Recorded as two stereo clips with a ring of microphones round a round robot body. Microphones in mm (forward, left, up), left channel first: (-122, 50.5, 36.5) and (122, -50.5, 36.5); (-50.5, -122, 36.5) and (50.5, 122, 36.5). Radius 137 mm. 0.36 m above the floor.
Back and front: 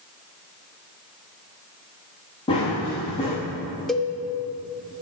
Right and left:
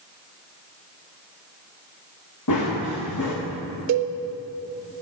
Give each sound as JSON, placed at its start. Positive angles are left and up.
{"t": 2.5, "sound": "running footsteps", "azimuth_deg": -130, "distance_m": 2.0}
{"t": 3.9, "sound": "a cowbell", "azimuth_deg": 70, "distance_m": 0.7}